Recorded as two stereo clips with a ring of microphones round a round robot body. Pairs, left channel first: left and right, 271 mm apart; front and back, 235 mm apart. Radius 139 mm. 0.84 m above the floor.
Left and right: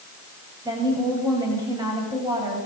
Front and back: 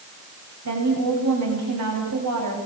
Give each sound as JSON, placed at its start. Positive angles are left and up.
{"t": 0.7, "sound": "a woman speaking", "azimuth_deg": -165, "distance_m": 7.0}